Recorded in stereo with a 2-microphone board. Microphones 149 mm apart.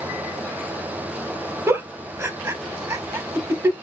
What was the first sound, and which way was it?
A giggle, 15° right (ahead or behind).